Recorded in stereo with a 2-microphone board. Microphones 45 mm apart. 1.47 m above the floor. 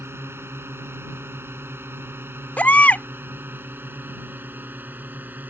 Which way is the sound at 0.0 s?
80° right.